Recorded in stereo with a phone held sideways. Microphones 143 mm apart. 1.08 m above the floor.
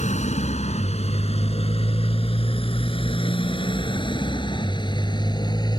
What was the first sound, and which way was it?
A motorcycle, 50° left (ahead or behind).